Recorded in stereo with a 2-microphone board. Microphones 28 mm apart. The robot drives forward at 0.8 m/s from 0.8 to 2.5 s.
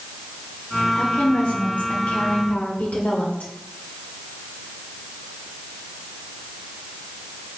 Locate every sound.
0.9 s a woman speaking: 60° left (ahead or behind), 1.9 m; by 3.5 s 55° left (ahead or behind), 2 m